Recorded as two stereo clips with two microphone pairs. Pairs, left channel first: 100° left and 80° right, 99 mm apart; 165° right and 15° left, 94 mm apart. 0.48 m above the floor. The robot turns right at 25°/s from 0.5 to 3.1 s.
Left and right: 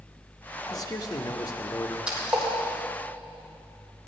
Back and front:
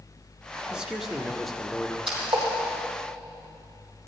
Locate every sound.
0.7 s a man speaking: 95° left, 1.1 m; by 2.0 s 125° left, 1.1 m
2.1 s a splash: straight ahead, 5.5 m; by 2.5 s 10° left, 5.5 m